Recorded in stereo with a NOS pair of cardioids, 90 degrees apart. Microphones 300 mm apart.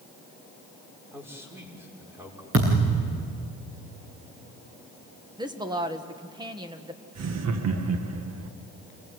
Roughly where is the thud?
Ahead right.